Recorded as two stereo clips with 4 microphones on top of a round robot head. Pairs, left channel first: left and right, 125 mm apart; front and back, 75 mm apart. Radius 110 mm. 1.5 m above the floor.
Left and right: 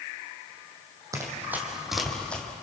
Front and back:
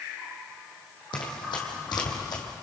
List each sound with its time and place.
1.1 s running footsteps: 30° right, 3 m; by 2.4 s 10° left, 3 m